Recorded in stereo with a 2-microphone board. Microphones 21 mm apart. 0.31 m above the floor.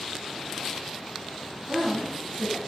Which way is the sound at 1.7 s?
65° right (ahead or behind).